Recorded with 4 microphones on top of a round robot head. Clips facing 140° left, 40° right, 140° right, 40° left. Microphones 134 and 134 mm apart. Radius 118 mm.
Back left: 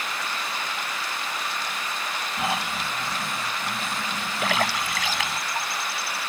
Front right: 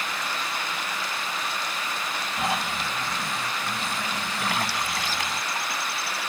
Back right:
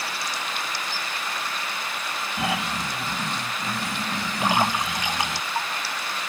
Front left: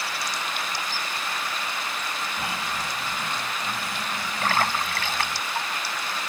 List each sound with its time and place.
2.4 s snoring: 130° right
4.4 s a splash: 145° left